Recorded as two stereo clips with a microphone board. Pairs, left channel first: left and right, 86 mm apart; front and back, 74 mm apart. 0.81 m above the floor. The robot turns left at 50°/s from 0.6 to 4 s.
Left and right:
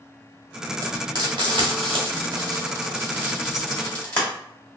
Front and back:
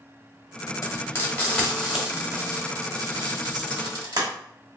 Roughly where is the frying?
Ahead right.